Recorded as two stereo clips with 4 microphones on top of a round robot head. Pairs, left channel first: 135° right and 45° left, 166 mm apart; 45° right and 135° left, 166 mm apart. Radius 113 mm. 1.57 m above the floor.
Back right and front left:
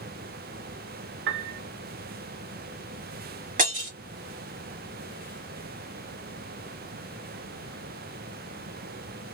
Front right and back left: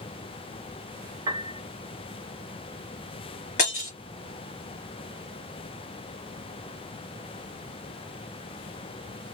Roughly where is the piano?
Left.